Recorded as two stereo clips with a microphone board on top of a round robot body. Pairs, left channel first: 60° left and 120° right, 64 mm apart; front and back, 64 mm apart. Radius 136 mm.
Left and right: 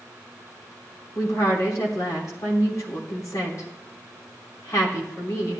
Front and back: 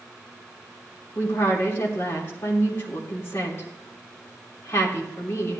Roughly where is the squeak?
I don't hear a squeak.